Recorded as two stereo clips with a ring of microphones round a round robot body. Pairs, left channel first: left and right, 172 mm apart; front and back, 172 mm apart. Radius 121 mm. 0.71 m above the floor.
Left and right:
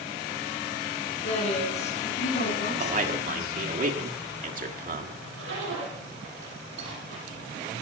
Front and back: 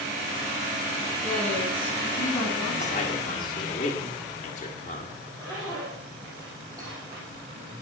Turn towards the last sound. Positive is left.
turn(degrees=-105)